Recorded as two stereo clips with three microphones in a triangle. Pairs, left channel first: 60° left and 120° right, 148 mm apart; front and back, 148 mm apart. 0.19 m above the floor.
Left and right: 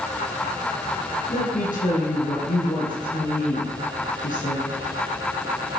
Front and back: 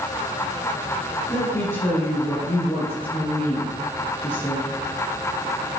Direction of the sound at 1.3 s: 75° left.